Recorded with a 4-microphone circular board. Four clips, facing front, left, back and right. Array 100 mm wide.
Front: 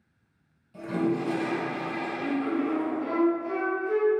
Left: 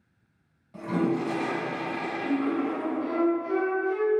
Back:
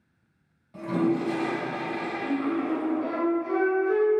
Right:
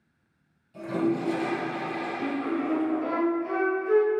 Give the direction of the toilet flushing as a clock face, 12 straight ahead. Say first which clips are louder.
Even, back 2 dB; 8 o'clock.